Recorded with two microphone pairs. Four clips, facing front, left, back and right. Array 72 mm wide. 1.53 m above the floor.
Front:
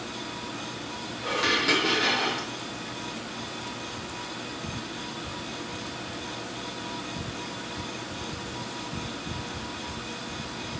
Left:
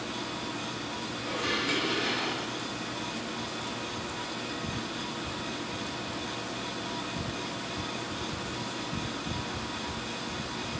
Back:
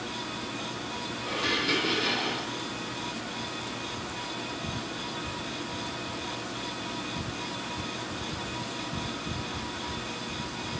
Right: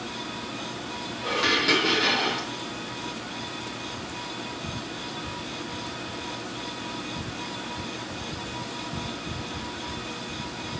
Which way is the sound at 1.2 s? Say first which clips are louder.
Right 7 dB, front 4 dB; 40° right.